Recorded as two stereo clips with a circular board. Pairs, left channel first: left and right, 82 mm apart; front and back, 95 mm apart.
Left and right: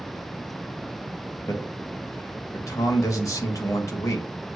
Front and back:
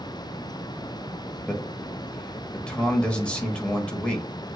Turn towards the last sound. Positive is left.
turn(degrees=75)